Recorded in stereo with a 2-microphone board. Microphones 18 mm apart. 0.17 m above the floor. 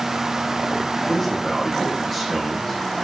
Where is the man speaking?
10° left (ahead or behind), 8 m.